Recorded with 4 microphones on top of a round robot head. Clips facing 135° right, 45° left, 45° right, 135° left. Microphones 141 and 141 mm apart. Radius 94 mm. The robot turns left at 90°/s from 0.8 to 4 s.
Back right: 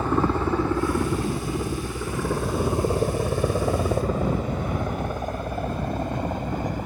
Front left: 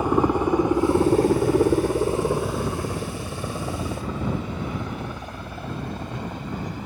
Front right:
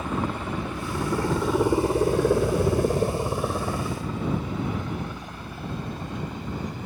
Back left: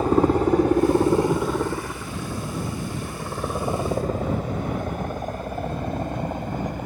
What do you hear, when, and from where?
0.0 s a helicopter: 110° left; by 6.9 s straight behind